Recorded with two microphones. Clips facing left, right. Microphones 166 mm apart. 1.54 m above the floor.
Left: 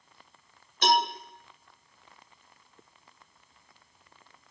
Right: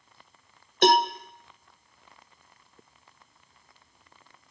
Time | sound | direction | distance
0.8 | a cowbell | 55° right (ahead or behind) | 1.4 m